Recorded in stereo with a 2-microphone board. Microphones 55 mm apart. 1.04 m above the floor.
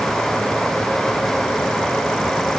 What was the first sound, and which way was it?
Only background noise.